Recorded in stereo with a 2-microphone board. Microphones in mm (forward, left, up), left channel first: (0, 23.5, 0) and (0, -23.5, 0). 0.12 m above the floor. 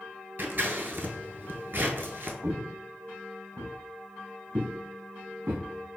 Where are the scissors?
50° right (ahead or behind), 0.7 m.